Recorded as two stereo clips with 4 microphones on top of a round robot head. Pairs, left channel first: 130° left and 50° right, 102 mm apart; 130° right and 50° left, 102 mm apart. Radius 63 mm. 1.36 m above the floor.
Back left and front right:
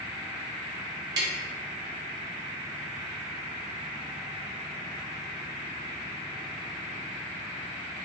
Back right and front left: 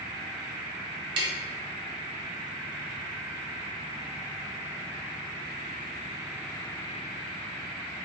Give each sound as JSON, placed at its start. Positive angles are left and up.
{"t": 1.2, "sound": "tapping", "azimuth_deg": 5, "distance_m": 0.8}